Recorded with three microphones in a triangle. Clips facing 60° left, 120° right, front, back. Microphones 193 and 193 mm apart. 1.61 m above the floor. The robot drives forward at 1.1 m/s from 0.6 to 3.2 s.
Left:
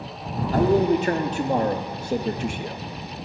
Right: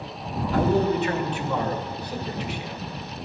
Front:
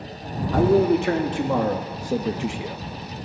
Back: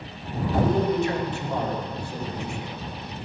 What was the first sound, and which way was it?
A man speaking, 5° left.